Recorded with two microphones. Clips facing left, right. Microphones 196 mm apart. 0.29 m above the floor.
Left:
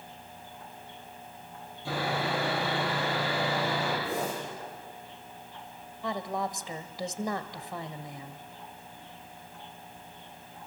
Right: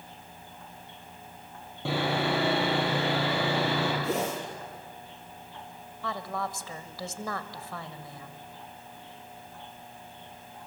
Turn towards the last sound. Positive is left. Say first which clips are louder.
# left 2 dB
turn(degrees=20)  # may be behind; listen again after turning